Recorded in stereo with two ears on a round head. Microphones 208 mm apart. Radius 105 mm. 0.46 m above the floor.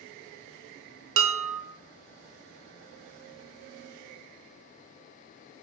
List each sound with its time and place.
1.2 s dishes clattering: 60° right (ahead or behind), 0.8 m